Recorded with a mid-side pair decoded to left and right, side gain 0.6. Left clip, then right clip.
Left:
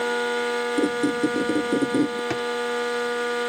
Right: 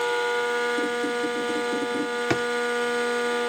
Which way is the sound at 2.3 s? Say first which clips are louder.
Right 2 dB; 25° right.